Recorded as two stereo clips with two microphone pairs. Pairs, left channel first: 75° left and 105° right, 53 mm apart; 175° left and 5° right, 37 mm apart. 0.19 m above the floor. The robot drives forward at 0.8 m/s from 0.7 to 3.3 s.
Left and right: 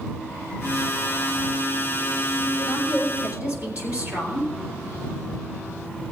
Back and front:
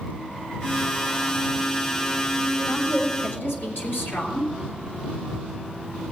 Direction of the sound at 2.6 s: 160° right.